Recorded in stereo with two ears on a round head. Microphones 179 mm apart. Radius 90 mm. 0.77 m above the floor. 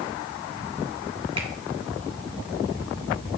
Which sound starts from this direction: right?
A finger snap, at 1.4 s.